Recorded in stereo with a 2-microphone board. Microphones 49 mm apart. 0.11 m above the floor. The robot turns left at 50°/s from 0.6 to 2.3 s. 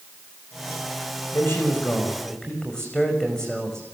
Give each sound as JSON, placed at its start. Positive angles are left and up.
{"t": 1.3, "sound": "a man speaking", "azimuth_deg": 65, "distance_m": 7.0}